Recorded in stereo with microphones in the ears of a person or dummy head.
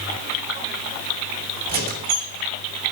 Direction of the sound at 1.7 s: 50° right (ahead or behind).